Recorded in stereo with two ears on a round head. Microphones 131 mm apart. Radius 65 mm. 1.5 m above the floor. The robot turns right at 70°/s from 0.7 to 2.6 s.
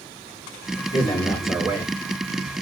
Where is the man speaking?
145° left, 1.5 m; by 2.6 s 100° right, 1.5 m.